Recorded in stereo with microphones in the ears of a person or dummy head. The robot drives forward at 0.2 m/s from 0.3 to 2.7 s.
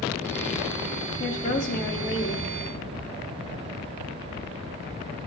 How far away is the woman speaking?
About 0.7 m.